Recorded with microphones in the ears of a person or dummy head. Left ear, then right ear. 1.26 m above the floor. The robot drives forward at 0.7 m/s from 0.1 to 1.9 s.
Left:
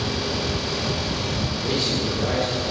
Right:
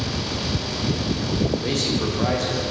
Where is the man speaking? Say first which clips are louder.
Even; 60° right (ahead or behind), 0.8 m; by 2.6 s 50° right (ahead or behind), 0.9 m.